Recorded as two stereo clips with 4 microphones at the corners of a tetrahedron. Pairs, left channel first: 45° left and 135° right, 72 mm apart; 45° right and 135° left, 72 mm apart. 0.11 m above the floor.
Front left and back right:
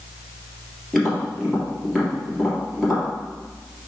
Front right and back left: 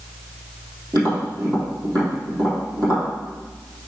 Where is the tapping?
135° left, 3 m.